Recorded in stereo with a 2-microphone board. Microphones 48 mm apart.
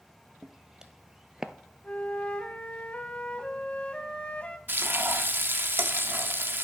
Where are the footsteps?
10° right (ahead or behind), 1.3 m; by 1.5 s 15° right (ahead or behind), 0.6 m.